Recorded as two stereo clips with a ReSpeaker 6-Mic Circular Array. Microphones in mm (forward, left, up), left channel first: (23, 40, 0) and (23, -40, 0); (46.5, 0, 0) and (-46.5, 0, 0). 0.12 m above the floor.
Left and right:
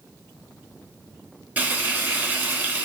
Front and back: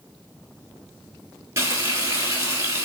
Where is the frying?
145° right, 0.9 m.